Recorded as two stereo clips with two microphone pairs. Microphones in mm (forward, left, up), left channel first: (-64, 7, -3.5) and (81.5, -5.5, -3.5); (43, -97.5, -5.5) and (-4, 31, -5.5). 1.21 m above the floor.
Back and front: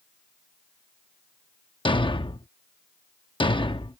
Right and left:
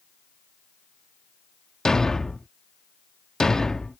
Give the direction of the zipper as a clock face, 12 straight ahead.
I don't hear a zipper.